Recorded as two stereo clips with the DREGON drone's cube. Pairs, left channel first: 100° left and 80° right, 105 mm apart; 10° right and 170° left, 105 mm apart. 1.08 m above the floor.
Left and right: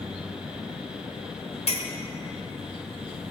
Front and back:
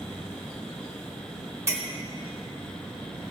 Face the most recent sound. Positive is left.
turn(degrees=110)